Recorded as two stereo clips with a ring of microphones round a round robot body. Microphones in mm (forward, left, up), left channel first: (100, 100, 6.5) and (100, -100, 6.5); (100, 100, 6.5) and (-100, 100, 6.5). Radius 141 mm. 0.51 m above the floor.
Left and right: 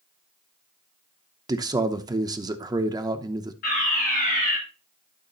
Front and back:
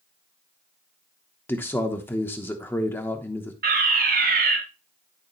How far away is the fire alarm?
About 4 m.